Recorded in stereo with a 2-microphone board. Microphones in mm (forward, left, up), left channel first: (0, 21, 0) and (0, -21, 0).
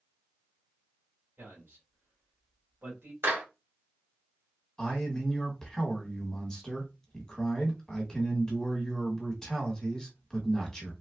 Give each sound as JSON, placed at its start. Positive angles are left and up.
{"t": 1.4, "sound": "a man speaking", "side_deg": -70, "distance_m": 1.8}
{"t": 3.2, "sound": "a clap", "side_deg": -70, "distance_m": 1.8}
{"t": 4.8, "sound": "a man speaking", "side_deg": 15, "distance_m": 1.3}